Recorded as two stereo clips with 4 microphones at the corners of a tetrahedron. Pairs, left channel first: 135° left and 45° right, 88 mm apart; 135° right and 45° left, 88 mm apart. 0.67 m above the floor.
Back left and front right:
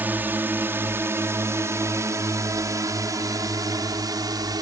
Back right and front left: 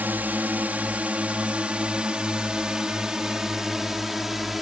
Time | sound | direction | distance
0.0 | a drone | straight ahead | ?